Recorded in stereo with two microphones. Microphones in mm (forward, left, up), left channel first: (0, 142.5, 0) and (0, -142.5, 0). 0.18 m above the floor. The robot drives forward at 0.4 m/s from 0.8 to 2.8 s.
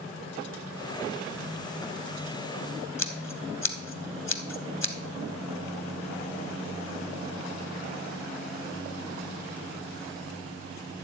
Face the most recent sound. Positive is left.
turn(degrees=65)  # may be behind; listen again after turning